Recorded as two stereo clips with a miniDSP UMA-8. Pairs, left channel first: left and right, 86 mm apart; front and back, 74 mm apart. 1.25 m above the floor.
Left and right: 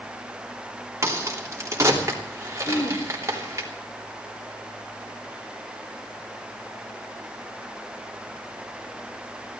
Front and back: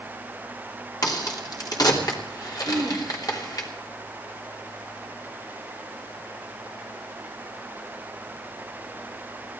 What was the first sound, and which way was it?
A crack, 35° right.